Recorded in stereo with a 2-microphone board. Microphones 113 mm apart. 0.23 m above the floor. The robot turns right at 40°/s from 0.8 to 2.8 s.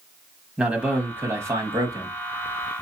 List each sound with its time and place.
0.6 s a man speaking: 165° right, 1.1 m; by 2.2 s 110° right, 1.1 m